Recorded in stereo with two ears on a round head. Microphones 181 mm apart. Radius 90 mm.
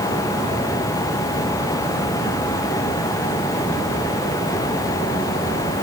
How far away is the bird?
I don't hear a bird.